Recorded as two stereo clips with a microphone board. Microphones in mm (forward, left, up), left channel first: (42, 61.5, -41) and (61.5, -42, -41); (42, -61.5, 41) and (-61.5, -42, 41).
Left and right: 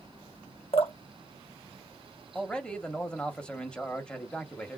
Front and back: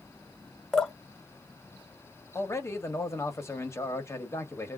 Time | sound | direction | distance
0.7 | dripping | 75° left | 0.9 m
2.4 | a man speaking | 25° left | 1.0 m